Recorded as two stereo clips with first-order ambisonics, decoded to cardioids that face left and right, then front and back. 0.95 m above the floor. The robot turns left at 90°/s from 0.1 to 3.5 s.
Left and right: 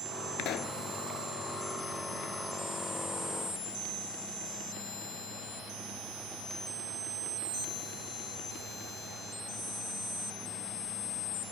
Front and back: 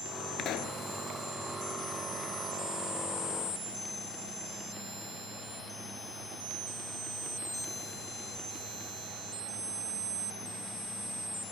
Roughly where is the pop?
Ahead left.